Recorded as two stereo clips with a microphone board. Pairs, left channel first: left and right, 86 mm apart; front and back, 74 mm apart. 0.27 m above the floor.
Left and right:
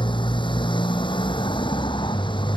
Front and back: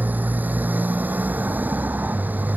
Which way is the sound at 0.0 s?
115° left.